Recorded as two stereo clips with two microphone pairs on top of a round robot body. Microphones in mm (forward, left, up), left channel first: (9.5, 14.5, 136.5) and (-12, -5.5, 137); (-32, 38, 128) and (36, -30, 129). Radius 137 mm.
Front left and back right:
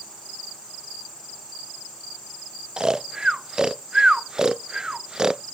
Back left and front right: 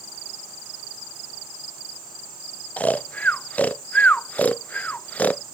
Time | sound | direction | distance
2.8 | snoring | 170° right | ?